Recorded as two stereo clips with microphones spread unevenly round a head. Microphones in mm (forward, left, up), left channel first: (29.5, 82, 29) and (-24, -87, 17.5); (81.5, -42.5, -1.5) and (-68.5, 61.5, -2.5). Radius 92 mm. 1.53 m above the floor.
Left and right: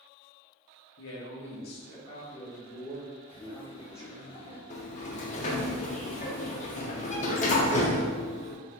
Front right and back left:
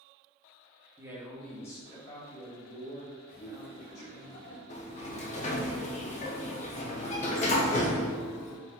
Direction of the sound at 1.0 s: 75° left.